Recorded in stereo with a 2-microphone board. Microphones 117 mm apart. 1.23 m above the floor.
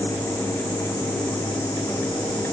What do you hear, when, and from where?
Only background noise.